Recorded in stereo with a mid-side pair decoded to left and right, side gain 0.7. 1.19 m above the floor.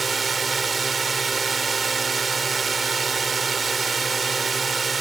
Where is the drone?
20° right.